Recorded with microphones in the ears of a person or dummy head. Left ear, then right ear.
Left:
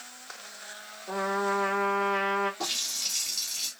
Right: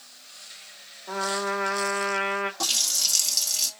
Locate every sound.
1.1 s a trumpet: 35° right (ahead or behind), 1.0 m
2.6 s a running tap: 80° right, 1.3 m